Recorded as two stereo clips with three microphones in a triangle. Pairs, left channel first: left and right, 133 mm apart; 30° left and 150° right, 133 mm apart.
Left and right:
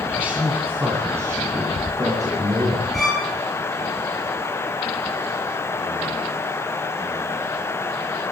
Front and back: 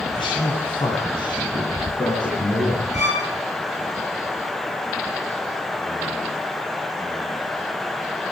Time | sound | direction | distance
0.1 | a man speaking | 10° right | 2 m
2.9 | a violin | straight ahead | 5.5 m